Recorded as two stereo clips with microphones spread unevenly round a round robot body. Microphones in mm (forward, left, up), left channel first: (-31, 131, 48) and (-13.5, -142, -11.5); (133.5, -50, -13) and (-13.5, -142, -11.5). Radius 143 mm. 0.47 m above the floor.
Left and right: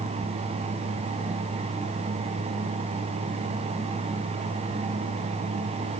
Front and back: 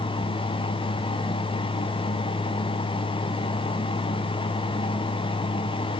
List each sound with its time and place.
Only background noise.